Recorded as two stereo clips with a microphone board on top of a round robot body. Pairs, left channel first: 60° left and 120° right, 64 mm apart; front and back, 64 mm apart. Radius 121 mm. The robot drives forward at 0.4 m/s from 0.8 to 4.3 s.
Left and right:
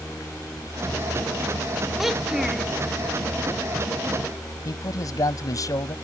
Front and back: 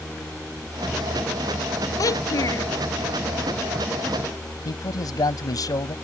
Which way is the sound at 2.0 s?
35° right.